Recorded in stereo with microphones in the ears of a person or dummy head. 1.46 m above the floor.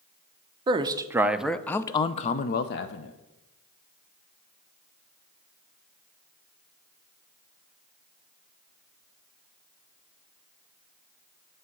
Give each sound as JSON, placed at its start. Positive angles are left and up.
{"t": 0.7, "sound": "a man speaking", "side_deg": -25, "distance_m": 0.8}